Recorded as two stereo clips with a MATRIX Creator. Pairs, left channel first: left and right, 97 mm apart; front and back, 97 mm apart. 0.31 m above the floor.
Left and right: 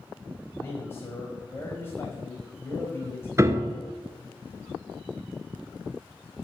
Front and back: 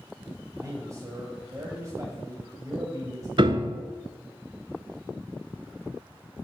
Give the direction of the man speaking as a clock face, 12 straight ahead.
7 o'clock.